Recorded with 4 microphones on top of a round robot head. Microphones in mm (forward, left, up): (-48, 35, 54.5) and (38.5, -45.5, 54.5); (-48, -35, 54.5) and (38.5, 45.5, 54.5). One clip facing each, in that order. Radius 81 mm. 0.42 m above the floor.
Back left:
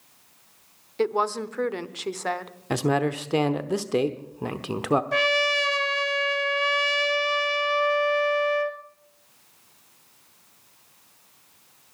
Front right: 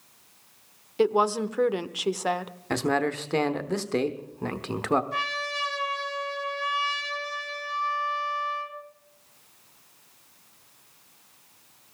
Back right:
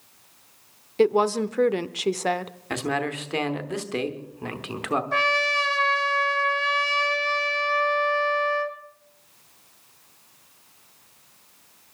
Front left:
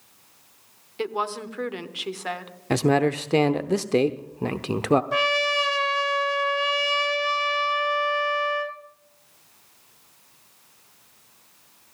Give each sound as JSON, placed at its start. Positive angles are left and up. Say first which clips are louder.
{"t": 1.0, "sound": "a woman speaking", "louder": "front right 2 dB, back right 9 dB", "azimuth_deg": -115, "distance_m": 1.0}
{"t": 2.7, "sound": "a man speaking", "louder": "back left 2 dB, front left 7 dB", "azimuth_deg": 65, "distance_m": 1.0}
{"t": 5.1, "sound": "a trumpet", "louder": "back left 8 dB, front left 1 dB", "azimuth_deg": 120, "distance_m": 1.7}